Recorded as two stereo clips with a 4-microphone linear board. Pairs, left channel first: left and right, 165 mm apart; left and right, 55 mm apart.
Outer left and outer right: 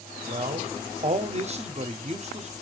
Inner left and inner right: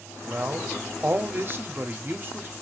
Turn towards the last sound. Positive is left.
turn(degrees=-40)  # may be behind; listen again after turning